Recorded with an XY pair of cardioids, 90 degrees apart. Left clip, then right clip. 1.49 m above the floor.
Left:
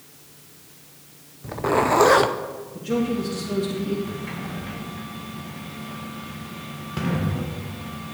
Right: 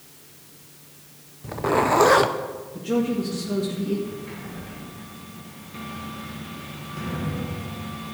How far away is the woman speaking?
About 1.9 m.